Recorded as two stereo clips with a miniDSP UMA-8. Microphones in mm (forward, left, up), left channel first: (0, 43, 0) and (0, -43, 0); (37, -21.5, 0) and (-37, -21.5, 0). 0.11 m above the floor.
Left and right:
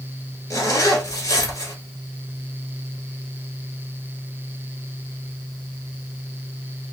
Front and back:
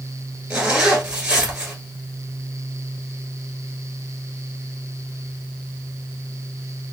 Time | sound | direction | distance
0.5 | a zipper | 105° left | 1.3 m